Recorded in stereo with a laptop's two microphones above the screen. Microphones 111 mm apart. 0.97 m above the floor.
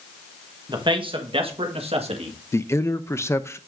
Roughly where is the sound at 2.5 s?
Left.